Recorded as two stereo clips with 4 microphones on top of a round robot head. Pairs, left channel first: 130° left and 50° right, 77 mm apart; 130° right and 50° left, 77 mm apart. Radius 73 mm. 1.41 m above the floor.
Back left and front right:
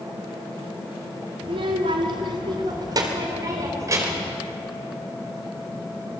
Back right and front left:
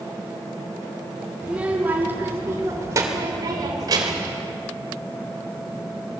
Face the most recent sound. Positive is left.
turn(degrees=10)